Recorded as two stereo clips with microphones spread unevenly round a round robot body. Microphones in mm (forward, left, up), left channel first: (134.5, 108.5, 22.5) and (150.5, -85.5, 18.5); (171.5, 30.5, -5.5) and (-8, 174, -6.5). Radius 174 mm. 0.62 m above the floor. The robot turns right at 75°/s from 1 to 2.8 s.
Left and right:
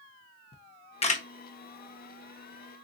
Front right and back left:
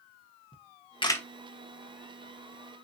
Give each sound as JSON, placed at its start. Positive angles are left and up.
{"t": 0.5, "sound": "a camera shutter", "azimuth_deg": 30, "distance_m": 0.8}